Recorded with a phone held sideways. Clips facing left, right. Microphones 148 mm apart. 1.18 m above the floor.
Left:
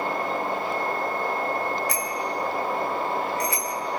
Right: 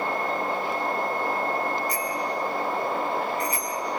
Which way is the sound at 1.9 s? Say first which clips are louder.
Even; 70° left (ahead or behind).